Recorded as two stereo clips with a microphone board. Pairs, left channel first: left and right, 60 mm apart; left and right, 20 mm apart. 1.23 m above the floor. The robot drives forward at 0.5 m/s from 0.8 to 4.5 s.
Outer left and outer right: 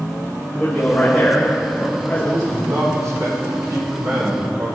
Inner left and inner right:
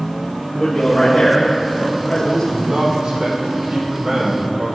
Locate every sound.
0.5 s a man speaking: 15° left (ahead or behind), 4.5 m
2.2 s a man speaking: 60° right (ahead or behind), 3 m; by 4.8 s 45° right (ahead or behind), 4 m